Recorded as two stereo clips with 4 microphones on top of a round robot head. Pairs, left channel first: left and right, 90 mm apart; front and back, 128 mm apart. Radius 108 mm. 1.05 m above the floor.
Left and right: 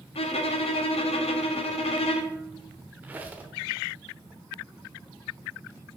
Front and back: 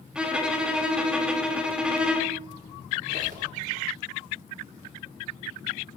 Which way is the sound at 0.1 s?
95° left.